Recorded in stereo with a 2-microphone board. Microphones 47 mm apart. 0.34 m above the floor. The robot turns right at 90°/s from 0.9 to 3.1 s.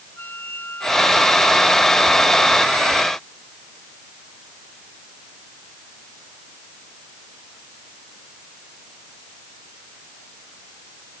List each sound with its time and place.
0.2 s a flute: 130° left; by 2.3 s 100° right